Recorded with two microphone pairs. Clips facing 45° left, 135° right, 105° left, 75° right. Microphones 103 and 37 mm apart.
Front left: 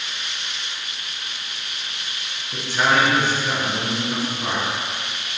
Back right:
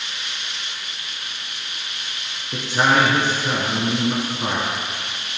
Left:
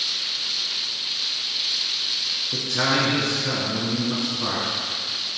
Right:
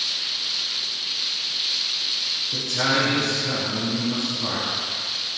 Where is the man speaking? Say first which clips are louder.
Back right 2 dB, even; 165° left, 4.5 m.